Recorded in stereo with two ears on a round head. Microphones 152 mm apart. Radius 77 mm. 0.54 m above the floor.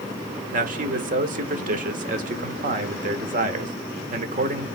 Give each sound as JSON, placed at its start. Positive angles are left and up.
{"t": 0.5, "sound": "a man speaking", "side_deg": -50, "distance_m": 1.4}